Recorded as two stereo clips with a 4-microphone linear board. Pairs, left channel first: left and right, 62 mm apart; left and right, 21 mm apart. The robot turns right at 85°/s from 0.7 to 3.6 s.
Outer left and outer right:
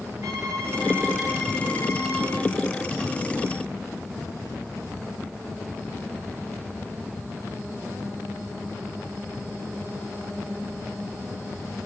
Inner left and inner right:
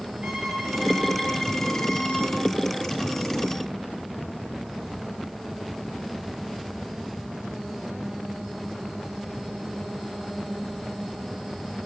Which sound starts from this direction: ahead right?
A violin, at 0.2 s.